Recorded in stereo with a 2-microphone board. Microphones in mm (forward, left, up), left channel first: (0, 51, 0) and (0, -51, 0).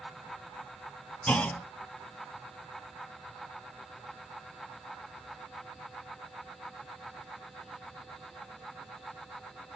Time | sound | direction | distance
1.3 | a clunk | 15° left (ahead or behind) | 1.0 m